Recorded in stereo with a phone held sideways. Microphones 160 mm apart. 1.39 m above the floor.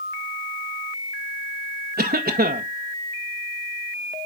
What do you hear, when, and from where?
2.0 s a cough: 75° right (ahead or behind), 0.8 m